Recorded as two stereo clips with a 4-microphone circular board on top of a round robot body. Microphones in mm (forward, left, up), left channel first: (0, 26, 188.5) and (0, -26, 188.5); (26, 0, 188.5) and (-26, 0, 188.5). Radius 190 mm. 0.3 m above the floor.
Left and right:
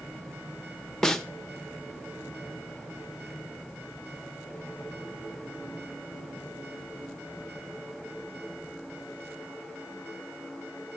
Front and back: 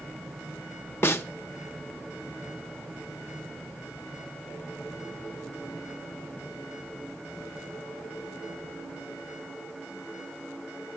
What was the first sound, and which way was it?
A snare drum, 10° left.